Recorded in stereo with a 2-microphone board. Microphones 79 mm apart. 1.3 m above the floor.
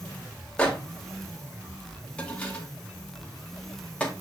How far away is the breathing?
I don't hear breathing.